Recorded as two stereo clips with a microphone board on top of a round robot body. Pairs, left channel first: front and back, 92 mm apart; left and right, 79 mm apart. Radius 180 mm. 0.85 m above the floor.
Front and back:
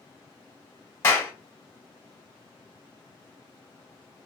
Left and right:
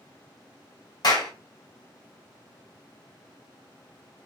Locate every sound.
1.0 s a clap: 65° left, 2.5 m